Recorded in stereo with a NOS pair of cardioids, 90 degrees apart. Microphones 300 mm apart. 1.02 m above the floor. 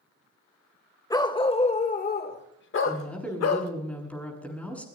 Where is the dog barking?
15° left, 1.7 m; by 3.7 s 65° left, 1.7 m.